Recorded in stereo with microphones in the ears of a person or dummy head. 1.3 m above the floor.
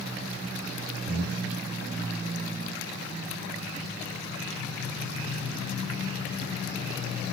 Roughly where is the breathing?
Right.